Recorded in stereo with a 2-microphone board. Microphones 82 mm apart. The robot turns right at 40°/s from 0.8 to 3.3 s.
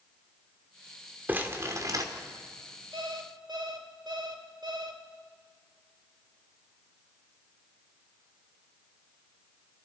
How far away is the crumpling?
About 2.5 m.